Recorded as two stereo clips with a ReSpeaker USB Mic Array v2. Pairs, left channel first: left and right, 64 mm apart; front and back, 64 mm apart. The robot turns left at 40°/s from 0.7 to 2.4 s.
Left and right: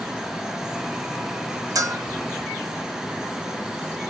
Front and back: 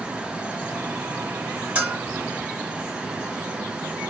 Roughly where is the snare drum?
I don't hear a snare drum.